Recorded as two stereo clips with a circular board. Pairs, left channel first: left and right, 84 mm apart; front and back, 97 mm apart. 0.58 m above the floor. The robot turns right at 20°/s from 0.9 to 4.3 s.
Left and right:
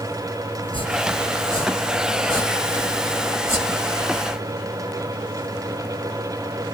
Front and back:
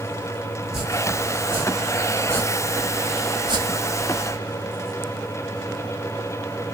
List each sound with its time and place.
0.6 s chopping: 95° left, 2.5 m; by 4.4 s 160° left, 2.5 m